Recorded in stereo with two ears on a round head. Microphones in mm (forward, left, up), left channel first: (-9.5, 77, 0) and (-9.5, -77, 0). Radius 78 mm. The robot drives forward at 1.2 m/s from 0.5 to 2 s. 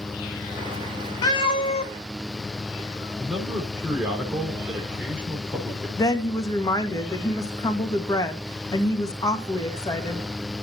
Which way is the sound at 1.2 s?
25° left (ahead or behind).